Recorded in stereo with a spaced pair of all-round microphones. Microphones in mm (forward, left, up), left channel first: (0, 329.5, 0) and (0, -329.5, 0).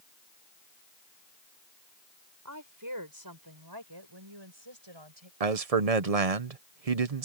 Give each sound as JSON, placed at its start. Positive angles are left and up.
{"t": 2.5, "sound": "a woman speaking", "side_deg": -25}
{"t": 5.4, "sound": "a man speaking", "side_deg": -60}